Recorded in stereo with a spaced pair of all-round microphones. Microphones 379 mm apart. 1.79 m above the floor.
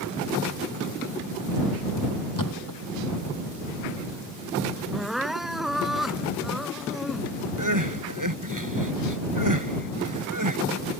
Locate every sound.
2.4 s a thud: 55° left (ahead or behind)
4.9 s crying: centre (ahead or behind)
7.6 s crying: 55° right (ahead or behind)